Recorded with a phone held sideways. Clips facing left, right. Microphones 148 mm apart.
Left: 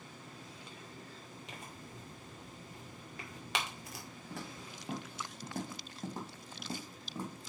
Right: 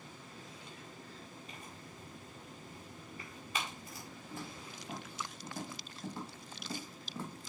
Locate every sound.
1.5 s tearing paper: 85° left, 1.8 m
4.3 s footsteps: 70° left (ahead or behind), 4.5 m; by 7.5 s 5° left (ahead or behind), 3 m